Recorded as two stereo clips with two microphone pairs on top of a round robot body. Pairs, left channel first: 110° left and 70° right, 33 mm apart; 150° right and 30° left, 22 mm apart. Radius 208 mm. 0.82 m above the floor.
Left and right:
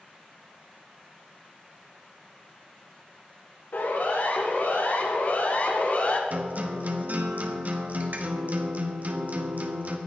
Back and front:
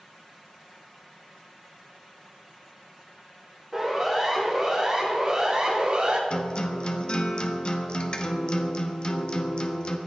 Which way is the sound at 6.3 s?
110° right.